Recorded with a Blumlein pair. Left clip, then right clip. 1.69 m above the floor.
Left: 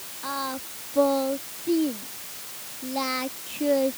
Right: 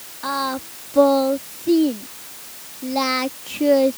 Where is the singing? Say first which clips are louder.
Right 7 dB; 20° right.